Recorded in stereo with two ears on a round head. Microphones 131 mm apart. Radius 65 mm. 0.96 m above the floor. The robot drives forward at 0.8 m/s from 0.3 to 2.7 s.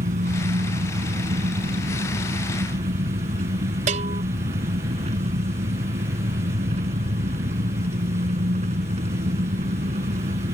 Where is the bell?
50° right (ahead or behind).